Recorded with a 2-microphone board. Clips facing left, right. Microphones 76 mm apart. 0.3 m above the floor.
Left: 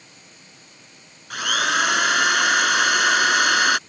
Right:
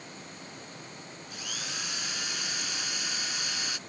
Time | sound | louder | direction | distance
1.3 | a drill | left 21 dB | 70° left (ahead or behind) | ?